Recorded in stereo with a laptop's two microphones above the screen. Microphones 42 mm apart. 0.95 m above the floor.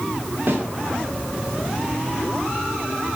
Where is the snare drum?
60° right (ahead or behind), 2 m.